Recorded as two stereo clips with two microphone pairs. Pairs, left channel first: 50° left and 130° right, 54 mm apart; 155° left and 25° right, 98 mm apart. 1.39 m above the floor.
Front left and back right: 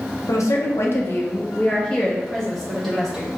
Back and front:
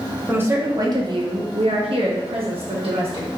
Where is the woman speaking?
45° left, 0.8 m; by 3.3 s 40° right, 1.5 m.